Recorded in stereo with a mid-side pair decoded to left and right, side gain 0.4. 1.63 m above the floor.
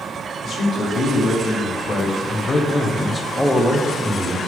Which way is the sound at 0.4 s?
60° left.